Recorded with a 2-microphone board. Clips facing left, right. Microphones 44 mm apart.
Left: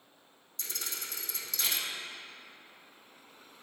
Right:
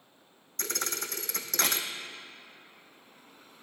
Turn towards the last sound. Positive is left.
turn(degrees=-55)  # may be behind; listen again after turning